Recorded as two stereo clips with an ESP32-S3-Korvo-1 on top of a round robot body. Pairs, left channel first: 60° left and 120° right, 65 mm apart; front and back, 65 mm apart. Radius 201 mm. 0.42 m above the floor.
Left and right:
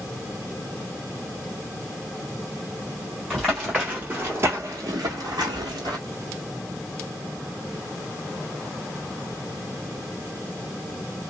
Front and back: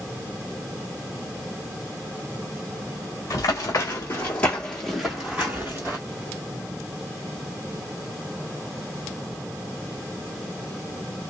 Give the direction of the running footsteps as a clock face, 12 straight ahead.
1 o'clock.